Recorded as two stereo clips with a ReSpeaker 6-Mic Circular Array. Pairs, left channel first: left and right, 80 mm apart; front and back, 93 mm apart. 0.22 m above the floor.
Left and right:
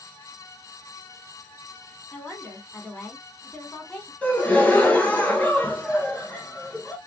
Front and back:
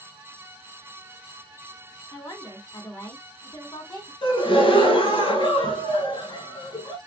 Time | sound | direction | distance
2.1 | a woman speaking | 20° left | 2.5 m
4.2 | a gasp | 20° left | 1.1 m